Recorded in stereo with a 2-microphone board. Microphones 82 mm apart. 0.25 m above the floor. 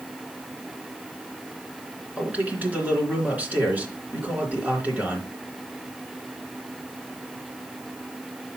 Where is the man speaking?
20° right (ahead or behind), 3 m.